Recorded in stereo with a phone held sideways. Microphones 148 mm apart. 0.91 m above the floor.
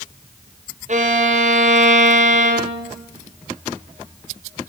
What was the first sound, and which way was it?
A violin, 55° right (ahead or behind).